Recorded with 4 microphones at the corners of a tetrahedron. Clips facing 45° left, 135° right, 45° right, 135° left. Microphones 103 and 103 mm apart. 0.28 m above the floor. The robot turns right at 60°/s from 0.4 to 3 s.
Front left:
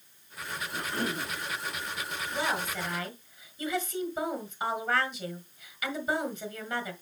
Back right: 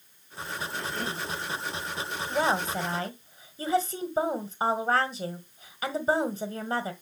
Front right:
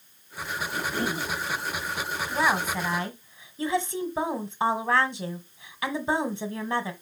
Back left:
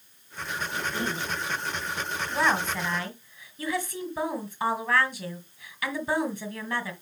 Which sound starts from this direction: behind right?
A woman speaking, at 2.3 s.